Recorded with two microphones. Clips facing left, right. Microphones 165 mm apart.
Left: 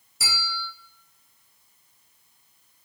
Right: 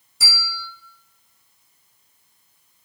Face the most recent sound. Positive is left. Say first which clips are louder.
# left 1 dB
turn(degrees=0)  # may be behind; listen again after turning